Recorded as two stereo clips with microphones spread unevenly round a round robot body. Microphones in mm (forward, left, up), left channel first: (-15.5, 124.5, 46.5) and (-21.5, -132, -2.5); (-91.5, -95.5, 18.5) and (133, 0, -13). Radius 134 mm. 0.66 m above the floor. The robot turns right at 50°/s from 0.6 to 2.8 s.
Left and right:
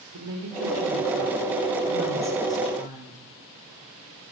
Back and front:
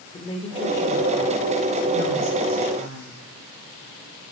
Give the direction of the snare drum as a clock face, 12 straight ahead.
I don't hear a snare drum.